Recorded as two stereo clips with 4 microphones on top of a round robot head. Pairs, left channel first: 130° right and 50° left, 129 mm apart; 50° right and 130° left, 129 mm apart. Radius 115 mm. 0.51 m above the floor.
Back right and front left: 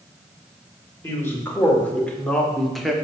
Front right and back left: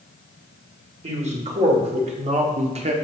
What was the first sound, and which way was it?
A man speaking, 160° left.